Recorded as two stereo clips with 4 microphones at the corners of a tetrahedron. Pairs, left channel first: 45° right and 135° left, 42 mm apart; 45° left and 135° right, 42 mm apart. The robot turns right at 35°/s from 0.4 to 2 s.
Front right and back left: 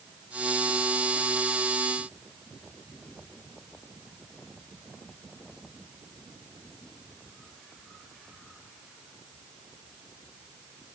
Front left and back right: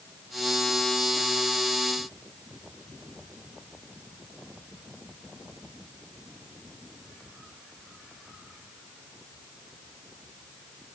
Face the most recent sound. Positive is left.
No sound to turn to.